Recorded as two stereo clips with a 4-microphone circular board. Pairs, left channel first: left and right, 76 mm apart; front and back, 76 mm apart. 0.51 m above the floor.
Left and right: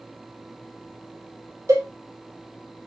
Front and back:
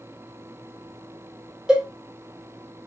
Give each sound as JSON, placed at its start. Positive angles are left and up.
{"t": 1.7, "sound": "a cowbell", "azimuth_deg": -105, "distance_m": 1.0}